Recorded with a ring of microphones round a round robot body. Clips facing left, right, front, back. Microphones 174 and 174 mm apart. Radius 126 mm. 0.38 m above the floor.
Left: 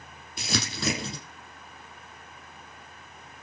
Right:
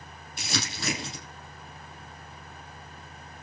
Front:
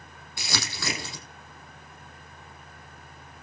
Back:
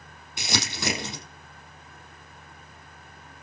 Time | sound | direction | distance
0.4 | crumpling | 110° left | 7 m